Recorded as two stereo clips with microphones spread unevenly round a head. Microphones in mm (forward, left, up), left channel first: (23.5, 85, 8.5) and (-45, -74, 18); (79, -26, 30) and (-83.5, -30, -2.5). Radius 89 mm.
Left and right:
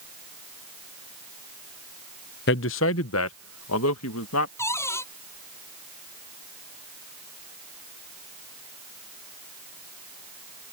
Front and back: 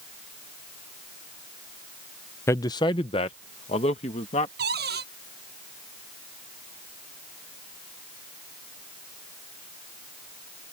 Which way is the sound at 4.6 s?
145° left.